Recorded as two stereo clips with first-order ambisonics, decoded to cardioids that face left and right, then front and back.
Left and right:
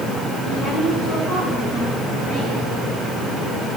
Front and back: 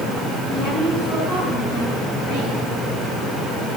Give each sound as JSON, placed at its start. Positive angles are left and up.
{"t": 0.5, "sound": "a woman speaking", "azimuth_deg": 20, "distance_m": 8.5}